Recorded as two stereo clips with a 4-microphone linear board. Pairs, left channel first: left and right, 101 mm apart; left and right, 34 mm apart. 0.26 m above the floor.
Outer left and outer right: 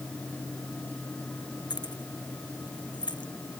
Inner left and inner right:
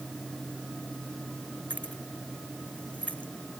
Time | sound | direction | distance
1.7 | keys jangling | 45° left (ahead or behind) | ?